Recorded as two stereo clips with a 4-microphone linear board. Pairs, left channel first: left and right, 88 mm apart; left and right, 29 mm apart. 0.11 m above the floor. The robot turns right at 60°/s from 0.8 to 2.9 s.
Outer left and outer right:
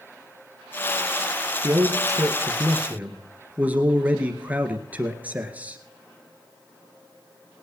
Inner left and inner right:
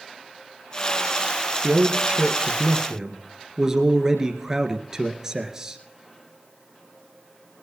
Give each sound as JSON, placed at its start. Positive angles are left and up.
{"t": 1.6, "sound": "a man speaking", "azimuth_deg": -100, "distance_m": 1.8}